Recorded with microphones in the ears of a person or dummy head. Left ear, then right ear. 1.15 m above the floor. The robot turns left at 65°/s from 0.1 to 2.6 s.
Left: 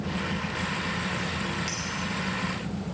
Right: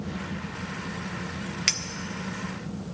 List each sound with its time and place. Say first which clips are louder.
1.7 s a clink: right 8 dB; 35° right (ahead or behind), 0.5 m